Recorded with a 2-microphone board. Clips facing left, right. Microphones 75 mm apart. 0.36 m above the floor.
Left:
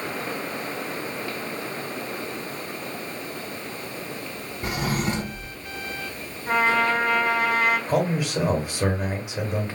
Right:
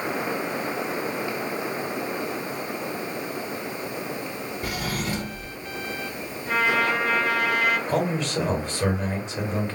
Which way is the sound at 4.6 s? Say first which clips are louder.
Left 5 dB; 25° left (ahead or behind).